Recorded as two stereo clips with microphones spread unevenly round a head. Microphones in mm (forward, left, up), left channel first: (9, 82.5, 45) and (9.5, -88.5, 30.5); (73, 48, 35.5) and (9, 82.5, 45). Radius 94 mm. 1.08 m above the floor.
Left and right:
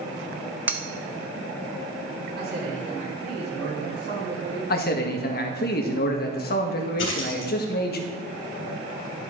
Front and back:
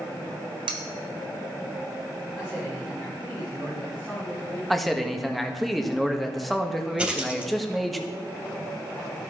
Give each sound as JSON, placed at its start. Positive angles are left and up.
{"t": 0.7, "sound": "cutlery clinking", "azimuth_deg": -170, "distance_m": 0.7}
{"t": 2.4, "sound": "a man speaking", "azimuth_deg": -125, "distance_m": 5.5}
{"t": 4.7, "sound": "a man speaking", "azimuth_deg": 60, "distance_m": 1.6}
{"t": 7.0, "sound": "a dropped coin", "azimuth_deg": 80, "distance_m": 3.0}